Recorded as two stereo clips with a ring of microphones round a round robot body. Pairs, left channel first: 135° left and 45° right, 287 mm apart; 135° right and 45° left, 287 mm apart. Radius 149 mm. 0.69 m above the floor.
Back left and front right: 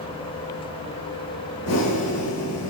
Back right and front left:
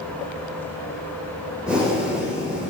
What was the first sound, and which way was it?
Breathing, 130° left.